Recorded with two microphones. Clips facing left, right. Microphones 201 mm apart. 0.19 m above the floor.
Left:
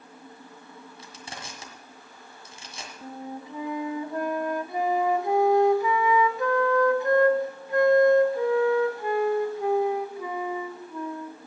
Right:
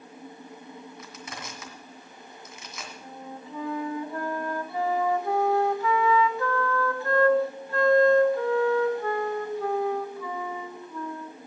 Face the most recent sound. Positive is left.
turn(degrees=20)  # may be behind; listen again after turning